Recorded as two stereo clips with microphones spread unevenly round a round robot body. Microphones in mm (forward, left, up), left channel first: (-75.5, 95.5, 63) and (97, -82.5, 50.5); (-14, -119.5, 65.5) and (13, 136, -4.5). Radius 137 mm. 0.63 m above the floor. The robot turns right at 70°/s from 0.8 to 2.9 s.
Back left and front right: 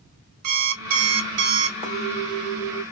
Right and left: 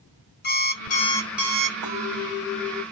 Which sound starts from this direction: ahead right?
An alarm clock, at 0.4 s.